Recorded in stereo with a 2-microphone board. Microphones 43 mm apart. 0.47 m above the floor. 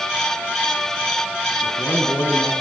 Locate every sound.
1.6 s a man speaking: 80° left, 5 m